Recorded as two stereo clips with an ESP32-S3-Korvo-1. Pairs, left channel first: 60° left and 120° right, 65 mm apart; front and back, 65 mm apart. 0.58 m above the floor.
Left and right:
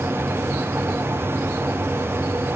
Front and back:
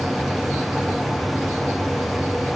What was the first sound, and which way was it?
Only background noise.